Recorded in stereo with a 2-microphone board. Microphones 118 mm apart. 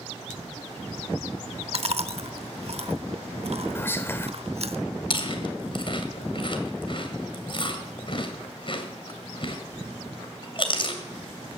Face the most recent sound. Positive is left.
turn(degrees=45)  # may be behind; listen again after turning